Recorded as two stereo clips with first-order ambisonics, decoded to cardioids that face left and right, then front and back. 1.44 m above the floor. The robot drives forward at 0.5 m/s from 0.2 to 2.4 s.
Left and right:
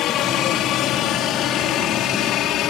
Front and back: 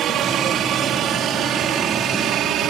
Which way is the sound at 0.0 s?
130° left.